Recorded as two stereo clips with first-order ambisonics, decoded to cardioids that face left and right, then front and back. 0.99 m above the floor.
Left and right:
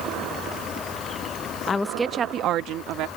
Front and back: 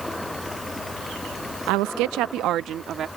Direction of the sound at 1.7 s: 155° left.